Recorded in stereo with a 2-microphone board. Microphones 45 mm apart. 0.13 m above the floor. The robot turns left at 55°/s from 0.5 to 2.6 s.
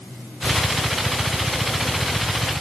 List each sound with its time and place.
Only background noise.